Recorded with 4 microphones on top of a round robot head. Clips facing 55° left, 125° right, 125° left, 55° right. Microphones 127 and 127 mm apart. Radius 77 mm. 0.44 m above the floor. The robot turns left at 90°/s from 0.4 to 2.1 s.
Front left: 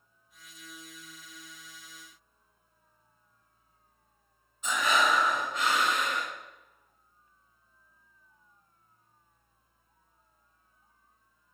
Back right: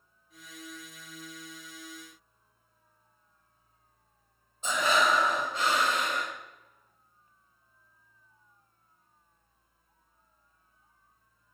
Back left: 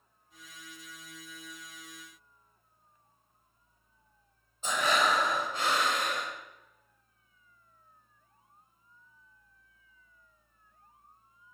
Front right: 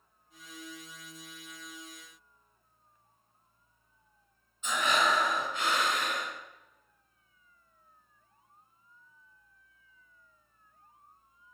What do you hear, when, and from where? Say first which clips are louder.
4.6 s breathing: back right 1 dB, back left 1 dB; straight behind, 2.5 m